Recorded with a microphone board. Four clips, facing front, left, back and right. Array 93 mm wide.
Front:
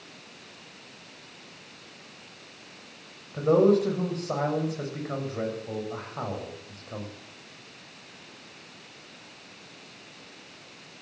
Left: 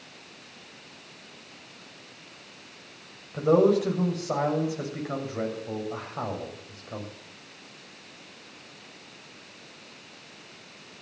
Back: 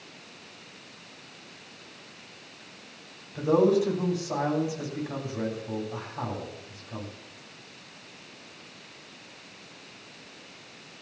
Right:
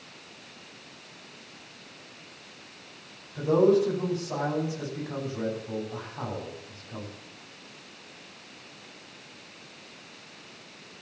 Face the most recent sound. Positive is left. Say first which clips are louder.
# left 1 dB, front 2 dB
turn(degrees=55)